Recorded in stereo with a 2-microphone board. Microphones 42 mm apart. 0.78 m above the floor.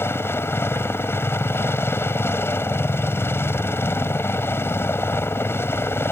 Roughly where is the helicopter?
Left.